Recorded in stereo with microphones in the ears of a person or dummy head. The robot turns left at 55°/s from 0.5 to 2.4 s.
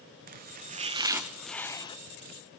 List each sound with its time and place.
0.3 s chopping: 130° right, 0.9 m; by 2.0 s 150° left, 0.9 m